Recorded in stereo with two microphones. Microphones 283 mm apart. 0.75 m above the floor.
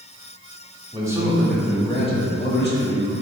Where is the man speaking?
15° right (ahead or behind), 1.6 m; by 3.1 s 50° left (ahead or behind), 1.6 m.